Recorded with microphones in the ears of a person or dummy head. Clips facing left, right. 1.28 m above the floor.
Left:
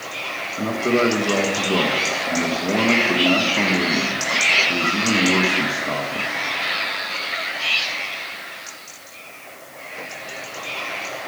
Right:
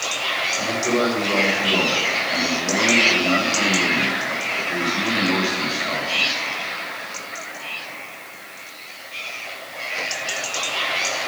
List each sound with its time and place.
0.6 s a man speaking: 45° left (ahead or behind), 1.0 m